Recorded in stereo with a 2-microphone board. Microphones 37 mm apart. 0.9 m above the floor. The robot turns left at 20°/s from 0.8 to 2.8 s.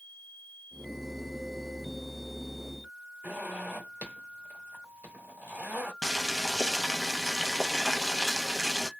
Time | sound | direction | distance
3.2 | a zipper | 80° right | 1.5 m
6.0 | boiling | centre (ahead or behind) | 0.5 m